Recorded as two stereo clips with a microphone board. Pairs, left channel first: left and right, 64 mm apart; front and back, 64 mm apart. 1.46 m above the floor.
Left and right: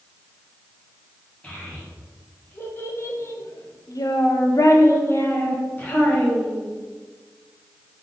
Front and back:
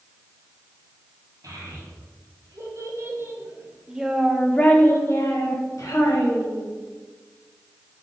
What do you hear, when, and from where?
1.4 s a child speaking: 155° left, 1.6 m; by 6.7 s 20° left, 1.4 m